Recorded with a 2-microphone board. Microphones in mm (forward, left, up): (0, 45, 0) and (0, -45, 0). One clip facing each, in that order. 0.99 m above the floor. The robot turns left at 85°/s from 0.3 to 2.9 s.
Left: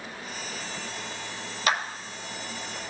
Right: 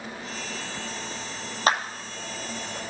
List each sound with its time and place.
1.7 s a clap: 35° right (ahead or behind), 0.9 m; by 1.8 s 25° right (ahead or behind), 0.9 m